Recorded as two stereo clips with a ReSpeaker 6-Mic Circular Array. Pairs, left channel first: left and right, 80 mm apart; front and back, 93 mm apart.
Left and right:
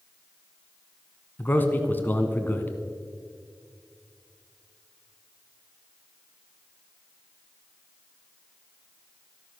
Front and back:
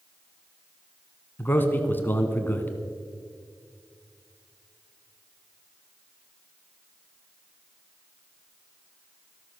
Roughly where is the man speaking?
Ahead left.